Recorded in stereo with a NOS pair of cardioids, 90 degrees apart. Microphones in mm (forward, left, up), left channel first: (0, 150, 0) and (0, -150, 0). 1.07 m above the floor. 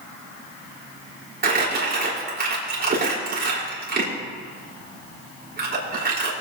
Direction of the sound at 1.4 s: 30° right.